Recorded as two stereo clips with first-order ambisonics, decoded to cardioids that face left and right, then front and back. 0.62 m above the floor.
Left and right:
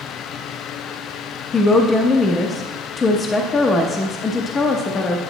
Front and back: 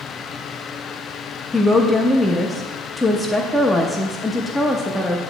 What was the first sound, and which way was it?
A woman speaking, 75° left.